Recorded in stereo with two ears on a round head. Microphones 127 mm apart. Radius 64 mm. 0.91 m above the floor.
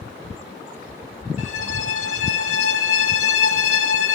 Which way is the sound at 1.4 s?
50° left (ahead or behind).